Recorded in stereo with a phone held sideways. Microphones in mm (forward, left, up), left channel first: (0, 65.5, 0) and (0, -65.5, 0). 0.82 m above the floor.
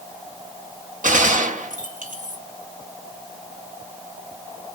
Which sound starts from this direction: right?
A gunshot, at 1.0 s.